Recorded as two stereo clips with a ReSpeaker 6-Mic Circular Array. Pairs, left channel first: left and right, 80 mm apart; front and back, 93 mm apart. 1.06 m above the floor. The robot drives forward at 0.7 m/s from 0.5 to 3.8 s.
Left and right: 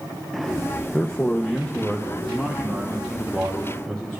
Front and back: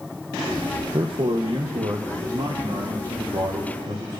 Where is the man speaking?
155° left, 0.7 m; by 4.2 s 175° left, 2.5 m.